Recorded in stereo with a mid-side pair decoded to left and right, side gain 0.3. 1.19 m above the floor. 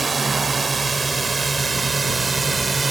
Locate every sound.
0.0 s a drone: 40° right